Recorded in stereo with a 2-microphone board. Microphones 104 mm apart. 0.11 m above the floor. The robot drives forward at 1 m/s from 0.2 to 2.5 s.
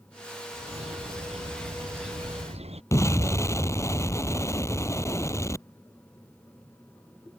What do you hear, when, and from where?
0.5 s a bird: 85° right
2.9 s an explosion: 30° left (ahead or behind)